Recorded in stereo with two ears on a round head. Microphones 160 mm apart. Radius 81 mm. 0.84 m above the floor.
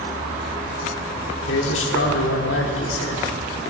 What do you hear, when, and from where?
1.5 s a man speaking: 75° left (ahead or behind), 1.9 m